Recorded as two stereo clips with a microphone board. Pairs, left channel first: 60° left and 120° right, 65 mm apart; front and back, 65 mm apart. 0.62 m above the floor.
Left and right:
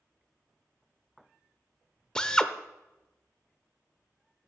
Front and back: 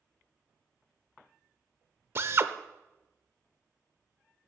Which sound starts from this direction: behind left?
A drill, at 2.1 s.